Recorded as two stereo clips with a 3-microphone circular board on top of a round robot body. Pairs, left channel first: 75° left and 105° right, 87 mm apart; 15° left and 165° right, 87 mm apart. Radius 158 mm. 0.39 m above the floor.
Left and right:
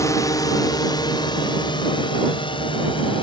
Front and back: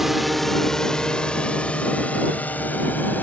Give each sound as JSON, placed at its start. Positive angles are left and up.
{"t": 0.0, "sound": "a drone", "azimuth_deg": 110}